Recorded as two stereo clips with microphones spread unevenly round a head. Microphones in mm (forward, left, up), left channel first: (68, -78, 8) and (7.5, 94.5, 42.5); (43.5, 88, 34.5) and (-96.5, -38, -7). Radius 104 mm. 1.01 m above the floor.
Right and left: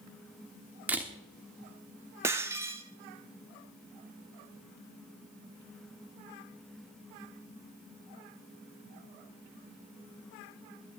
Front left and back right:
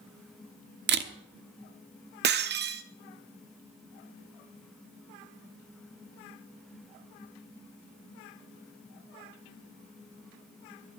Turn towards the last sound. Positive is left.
turn(degrees=-175)